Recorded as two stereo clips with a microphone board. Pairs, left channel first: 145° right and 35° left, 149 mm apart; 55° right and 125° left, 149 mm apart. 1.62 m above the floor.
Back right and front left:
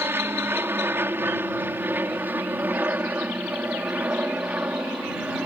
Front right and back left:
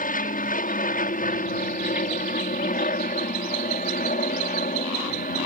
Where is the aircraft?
40° right; by 5.5 s 45° right.